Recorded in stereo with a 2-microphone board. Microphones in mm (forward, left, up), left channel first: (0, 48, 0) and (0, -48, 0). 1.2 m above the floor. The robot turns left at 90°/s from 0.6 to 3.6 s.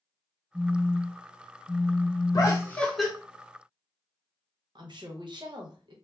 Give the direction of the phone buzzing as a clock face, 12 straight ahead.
4 o'clock.